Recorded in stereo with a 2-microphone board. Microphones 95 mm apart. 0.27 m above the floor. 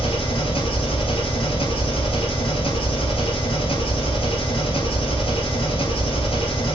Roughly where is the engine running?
Left.